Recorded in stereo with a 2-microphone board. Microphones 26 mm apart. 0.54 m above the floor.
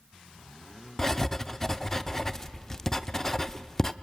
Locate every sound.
1.0 s writing: 15° left (ahead or behind), 0.7 m